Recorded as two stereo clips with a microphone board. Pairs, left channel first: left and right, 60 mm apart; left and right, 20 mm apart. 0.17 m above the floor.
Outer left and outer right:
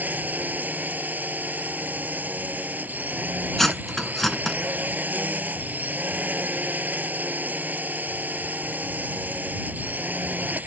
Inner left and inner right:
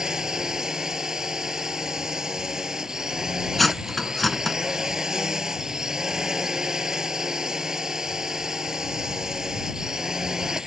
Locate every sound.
0.0 s a drone: 25° right (ahead or behind)
3.6 s cutlery clinking: 5° left (ahead or behind)